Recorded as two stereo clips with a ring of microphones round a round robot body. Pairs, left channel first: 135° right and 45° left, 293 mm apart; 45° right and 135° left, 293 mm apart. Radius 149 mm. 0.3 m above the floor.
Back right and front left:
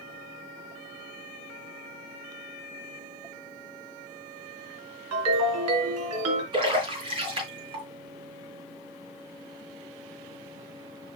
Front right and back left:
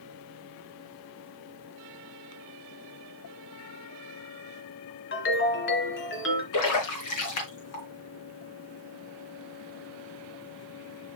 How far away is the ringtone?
About 2.5 m.